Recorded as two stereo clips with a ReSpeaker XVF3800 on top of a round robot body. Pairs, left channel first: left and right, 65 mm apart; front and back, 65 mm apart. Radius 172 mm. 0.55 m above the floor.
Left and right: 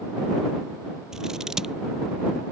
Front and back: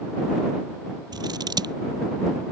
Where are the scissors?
170° right.